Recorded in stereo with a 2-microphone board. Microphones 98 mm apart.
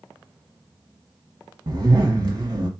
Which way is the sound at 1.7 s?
45° right (ahead or behind).